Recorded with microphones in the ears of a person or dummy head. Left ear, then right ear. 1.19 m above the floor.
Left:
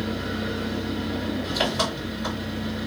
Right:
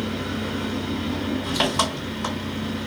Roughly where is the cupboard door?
No cupboard door in this recording.